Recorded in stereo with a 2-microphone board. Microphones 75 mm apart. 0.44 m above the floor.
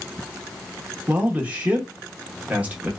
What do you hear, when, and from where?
1.1 s a man speaking: 20° right (ahead or behind), 0.7 m